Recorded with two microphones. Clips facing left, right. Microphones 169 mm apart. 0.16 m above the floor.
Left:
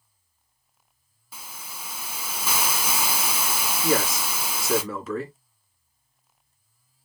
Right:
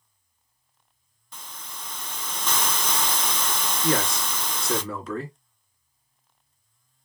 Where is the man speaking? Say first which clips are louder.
Left 1 dB; centre (ahead or behind), 1.9 m.